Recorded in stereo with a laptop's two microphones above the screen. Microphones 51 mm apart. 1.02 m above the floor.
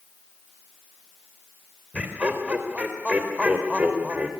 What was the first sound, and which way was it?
Laughter, 25° right (ahead or behind).